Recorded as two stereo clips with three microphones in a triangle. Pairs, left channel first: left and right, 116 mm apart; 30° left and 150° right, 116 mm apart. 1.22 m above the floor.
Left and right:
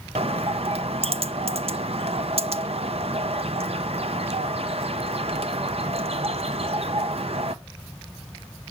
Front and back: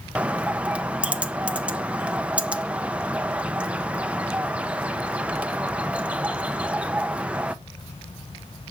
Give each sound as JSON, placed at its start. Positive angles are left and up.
{"t": 0.1, "sound": "a bird", "azimuth_deg": -70, "distance_m": 0.8}